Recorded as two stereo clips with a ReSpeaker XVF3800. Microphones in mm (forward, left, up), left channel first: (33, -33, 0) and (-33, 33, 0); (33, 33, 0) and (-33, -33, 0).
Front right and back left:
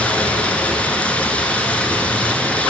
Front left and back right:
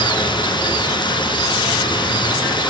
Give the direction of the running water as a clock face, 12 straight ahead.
11 o'clock.